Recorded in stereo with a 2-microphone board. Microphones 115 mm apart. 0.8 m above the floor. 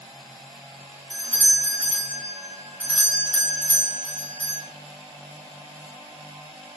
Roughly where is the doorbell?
Right.